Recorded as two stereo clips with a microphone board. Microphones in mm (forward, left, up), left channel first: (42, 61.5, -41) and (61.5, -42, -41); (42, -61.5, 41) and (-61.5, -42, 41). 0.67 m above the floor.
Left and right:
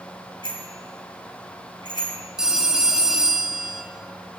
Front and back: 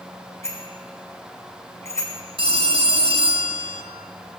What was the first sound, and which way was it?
A bicycle bell, 55° left.